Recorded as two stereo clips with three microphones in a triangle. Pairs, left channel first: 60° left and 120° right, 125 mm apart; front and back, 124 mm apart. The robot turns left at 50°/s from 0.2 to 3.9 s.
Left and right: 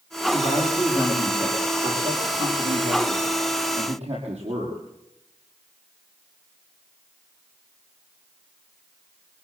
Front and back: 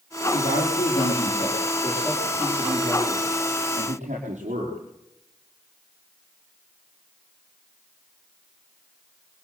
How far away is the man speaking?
About 7.5 m.